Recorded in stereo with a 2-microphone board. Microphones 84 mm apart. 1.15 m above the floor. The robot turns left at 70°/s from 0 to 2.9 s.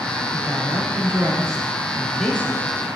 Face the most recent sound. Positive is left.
turn(degrees=125)